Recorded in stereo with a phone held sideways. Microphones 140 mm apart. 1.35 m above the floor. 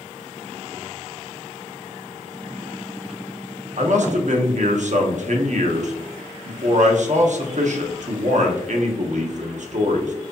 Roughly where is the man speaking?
Right.